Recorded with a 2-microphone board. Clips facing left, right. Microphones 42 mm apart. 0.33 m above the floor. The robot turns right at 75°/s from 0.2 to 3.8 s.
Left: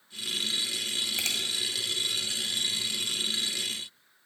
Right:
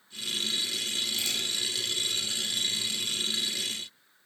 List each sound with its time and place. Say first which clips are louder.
1.2 s a finger snap: left 1 dB; 55° left (ahead or behind), 1.4 m